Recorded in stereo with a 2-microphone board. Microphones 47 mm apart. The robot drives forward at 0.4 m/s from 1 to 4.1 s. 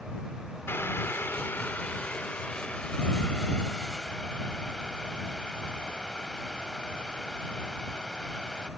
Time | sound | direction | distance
0.7 | boiling | 55° left (ahead or behind) | 0.6 m